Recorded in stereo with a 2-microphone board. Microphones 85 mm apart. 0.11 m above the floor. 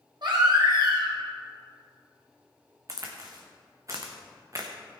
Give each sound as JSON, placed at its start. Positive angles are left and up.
{"t": 0.2, "sound": "a baby crying", "side_deg": -65, "distance_m": 3.5}
{"t": 2.9, "sound": "a crack", "side_deg": -40, "distance_m": 2.0}